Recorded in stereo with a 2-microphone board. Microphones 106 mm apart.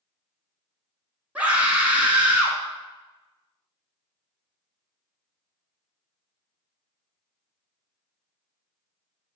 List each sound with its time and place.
1.4 s a scream: 15° right (ahead or behind), 1.1 m